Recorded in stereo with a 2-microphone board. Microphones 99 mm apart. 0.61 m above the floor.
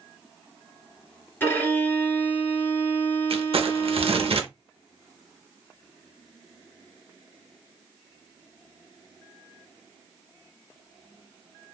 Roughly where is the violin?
Left.